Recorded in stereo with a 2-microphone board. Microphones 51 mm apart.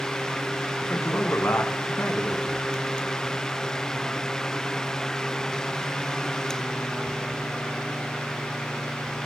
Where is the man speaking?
60° left (ahead or behind), 1.3 m.